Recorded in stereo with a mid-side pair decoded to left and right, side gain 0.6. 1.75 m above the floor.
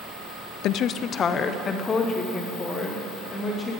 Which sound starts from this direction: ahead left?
A woman speaking, at 0.6 s.